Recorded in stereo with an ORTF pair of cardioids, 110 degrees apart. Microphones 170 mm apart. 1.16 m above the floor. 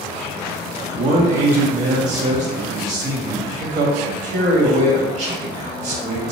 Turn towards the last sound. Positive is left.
turn(degrees=-45)